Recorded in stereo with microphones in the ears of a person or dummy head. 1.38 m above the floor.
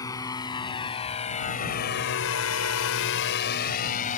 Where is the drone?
20° left (ahead or behind); by 4.2 s 40° left (ahead or behind).